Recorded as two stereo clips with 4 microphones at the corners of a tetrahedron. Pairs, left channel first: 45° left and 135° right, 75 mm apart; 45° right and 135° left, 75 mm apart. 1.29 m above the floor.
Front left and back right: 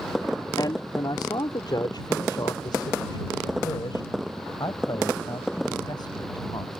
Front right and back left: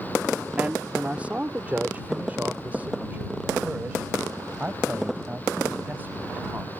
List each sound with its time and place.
0.6 s a man speaking: 60° left; by 6.8 s 70° left